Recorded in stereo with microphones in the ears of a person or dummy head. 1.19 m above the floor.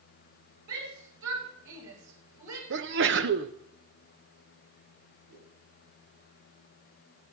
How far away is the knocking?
I don't hear knocking.